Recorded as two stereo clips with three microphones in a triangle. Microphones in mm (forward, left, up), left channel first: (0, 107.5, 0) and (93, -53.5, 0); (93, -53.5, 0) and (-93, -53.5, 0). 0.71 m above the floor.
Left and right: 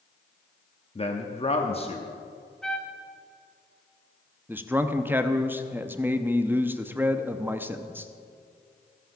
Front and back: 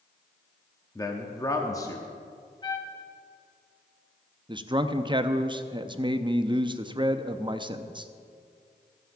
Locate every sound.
0.9 s a man speaking: 65° left, 0.9 m
2.6 s a trumpet: 35° left, 1.2 m
4.5 s a man speaking: 130° right, 0.5 m